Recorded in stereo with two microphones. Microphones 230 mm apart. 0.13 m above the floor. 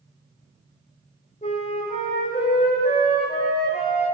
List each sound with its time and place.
1.4 s a flute: 30° left (ahead or behind), 4 m